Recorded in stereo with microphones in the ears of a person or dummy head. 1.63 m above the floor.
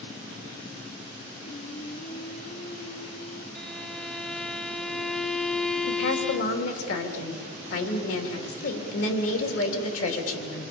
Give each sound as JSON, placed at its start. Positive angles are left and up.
{"t": 1.4, "sound": "singing", "side_deg": 55, "distance_m": 2.0}
{"t": 3.5, "sound": "a violin", "side_deg": 0, "distance_m": 0.6}
{"t": 5.9, "sound": "a woman speaking", "side_deg": 85, "distance_m": 3.5}